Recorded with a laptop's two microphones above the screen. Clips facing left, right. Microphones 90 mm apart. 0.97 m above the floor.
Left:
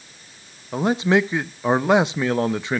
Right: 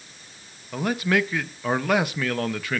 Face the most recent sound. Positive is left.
turn(degrees=20)  # may be behind; listen again after turning